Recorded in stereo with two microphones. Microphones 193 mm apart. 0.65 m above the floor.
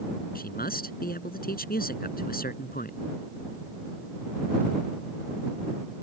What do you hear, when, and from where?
0.3 s a man speaking: 50° left (ahead or behind)